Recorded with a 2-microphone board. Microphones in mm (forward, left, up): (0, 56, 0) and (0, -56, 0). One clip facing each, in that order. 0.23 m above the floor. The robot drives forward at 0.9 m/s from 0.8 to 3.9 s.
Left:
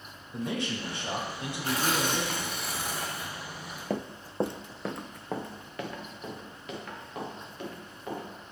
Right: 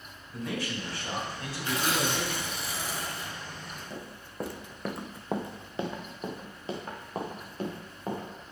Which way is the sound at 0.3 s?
25° left (ahead or behind).